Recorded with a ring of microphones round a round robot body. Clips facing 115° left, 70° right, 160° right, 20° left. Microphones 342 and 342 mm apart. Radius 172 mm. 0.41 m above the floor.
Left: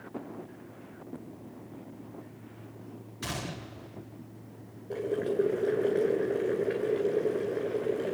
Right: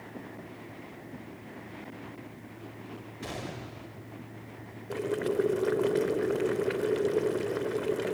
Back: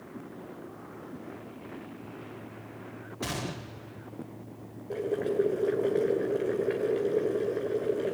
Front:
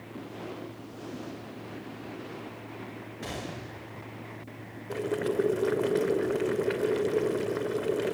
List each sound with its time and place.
3.2 s a gunshot: 155° left, 2 m
4.9 s boiling: 20° right, 1.9 m